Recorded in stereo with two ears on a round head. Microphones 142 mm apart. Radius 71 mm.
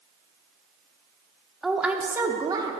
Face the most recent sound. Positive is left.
turn(degrees=-25)  # may be behind; listen again after turning